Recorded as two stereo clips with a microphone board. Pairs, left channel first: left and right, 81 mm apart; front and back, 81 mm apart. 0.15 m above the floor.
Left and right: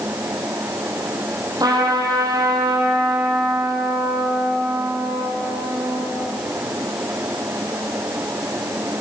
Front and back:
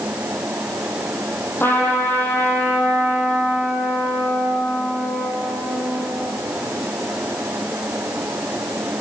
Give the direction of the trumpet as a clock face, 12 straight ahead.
2 o'clock.